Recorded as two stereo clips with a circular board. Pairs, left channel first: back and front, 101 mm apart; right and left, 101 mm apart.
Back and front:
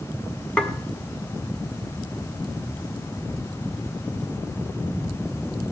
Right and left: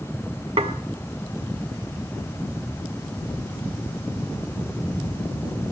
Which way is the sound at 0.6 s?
95° left.